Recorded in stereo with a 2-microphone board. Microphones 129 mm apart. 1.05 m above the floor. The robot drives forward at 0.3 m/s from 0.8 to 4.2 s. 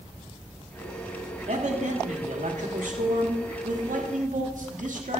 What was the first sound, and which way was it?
A man speaking, 65° right (ahead or behind).